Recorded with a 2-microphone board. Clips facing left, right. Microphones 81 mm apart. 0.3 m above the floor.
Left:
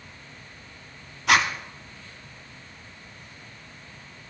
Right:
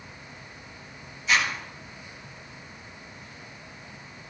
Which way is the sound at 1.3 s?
70° left (ahead or behind).